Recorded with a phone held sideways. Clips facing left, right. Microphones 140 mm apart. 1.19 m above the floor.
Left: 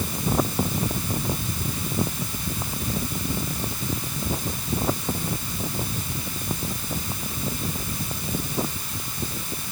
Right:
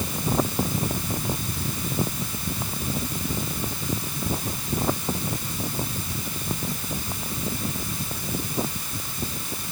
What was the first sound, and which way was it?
Only background noise.